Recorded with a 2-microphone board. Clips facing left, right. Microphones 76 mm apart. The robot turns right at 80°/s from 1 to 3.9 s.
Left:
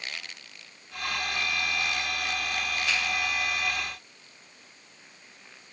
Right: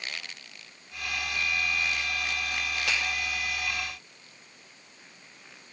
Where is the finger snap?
65° right (ahead or behind), 2.5 m; by 3.0 s 70° right (ahead or behind), 2.5 m.